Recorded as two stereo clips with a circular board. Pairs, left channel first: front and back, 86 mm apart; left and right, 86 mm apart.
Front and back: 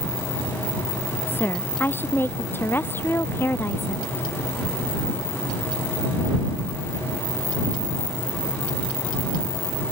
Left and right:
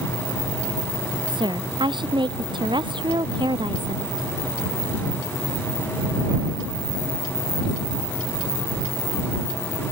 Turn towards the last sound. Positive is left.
turn(degrees=-65)